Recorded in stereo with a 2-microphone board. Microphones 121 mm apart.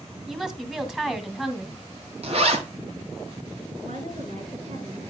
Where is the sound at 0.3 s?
5° right (ahead or behind), 1.8 m.